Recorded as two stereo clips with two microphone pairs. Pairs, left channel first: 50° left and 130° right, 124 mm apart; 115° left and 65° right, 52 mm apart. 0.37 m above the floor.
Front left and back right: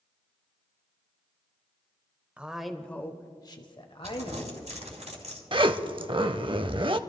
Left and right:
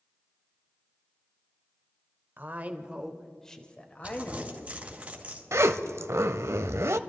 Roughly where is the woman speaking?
Ahead right.